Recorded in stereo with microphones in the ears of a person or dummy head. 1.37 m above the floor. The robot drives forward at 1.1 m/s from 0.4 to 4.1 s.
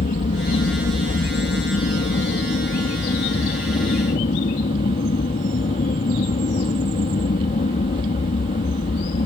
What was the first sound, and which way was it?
An aircraft, 40° left (ahead or behind).